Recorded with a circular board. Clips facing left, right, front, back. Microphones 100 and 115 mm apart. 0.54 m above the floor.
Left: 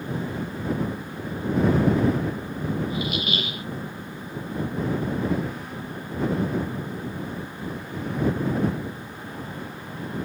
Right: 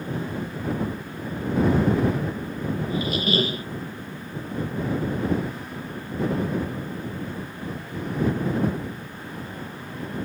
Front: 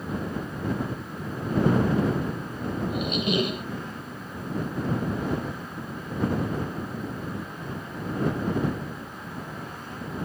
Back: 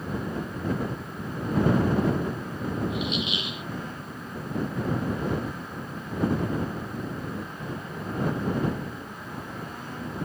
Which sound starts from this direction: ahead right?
A squeak, at 2.9 s.